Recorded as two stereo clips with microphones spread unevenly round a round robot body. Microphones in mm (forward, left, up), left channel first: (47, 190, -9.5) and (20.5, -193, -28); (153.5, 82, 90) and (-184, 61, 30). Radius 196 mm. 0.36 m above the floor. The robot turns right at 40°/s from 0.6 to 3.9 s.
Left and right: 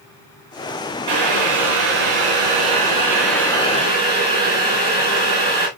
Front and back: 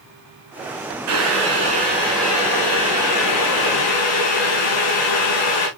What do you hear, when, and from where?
1.1 s boiling: 130° right, 5.5 m; by 5.7 s 15° right, 5.5 m